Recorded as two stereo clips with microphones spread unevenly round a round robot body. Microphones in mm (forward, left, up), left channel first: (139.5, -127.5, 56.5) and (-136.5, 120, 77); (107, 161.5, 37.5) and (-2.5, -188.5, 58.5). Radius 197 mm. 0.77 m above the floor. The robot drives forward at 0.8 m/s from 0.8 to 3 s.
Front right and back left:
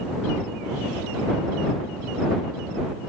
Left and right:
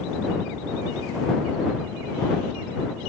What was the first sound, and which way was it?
Only background noise.